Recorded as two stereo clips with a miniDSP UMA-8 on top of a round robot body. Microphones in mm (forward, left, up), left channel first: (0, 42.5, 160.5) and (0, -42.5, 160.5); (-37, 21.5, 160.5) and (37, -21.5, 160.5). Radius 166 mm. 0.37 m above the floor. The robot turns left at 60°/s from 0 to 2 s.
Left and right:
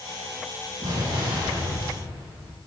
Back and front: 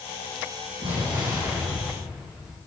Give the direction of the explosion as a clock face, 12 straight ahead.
2 o'clock.